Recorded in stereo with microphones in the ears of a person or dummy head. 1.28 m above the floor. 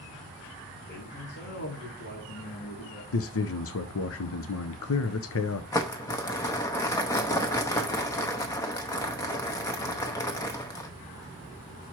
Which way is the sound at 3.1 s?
70° left (ahead or behind).